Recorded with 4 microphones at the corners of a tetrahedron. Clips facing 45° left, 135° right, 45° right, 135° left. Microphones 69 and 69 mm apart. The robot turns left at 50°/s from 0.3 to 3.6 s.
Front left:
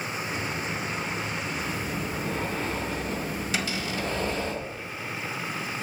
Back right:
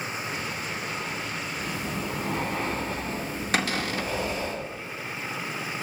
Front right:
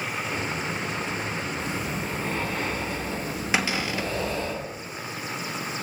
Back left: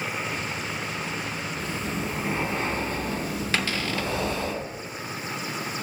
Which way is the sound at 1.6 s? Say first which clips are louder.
Even, even; 115° right.